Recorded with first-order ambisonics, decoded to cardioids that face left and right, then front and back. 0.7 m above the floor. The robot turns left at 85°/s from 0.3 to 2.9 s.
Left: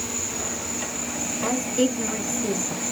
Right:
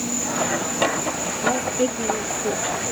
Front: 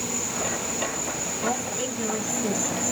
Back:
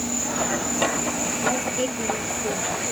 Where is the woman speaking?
145° left, 5.5 m; by 2.8 s 25° left, 5.5 m.